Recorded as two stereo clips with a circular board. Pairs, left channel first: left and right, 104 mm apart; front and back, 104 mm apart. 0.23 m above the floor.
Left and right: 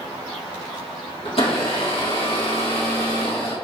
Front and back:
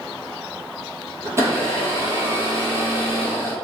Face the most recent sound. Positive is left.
turn(degrees=115)